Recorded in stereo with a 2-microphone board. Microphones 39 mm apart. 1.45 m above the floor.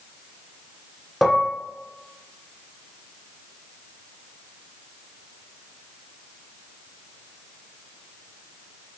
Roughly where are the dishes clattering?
Centre.